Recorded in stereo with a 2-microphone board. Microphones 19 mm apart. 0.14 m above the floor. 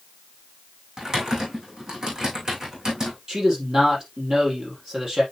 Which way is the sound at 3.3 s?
40° right (ahead or behind).